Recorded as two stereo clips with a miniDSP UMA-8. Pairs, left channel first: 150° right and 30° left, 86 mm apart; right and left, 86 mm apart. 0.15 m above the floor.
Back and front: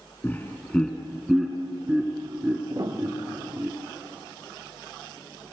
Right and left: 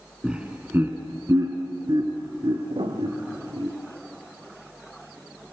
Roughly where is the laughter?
Behind.